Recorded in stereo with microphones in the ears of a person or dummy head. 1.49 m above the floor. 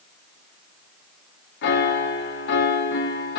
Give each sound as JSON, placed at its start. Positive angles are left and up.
{"t": 1.6, "sound": "a piano", "side_deg": 65, "distance_m": 1.6}